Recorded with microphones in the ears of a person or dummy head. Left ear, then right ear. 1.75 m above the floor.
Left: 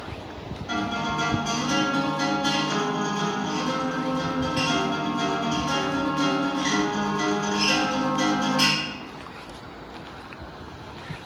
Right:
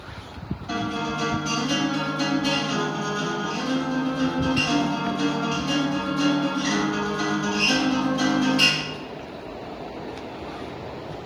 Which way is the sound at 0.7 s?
5° left (ahead or behind).